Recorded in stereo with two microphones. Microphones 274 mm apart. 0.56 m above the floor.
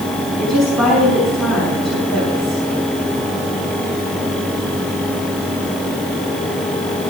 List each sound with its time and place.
0.4 s a woman speaking: 10° right (ahead or behind), 5.5 m